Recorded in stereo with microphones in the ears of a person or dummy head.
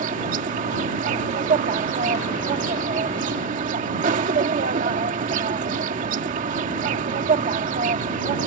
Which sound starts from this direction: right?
An insect, at 0.0 s.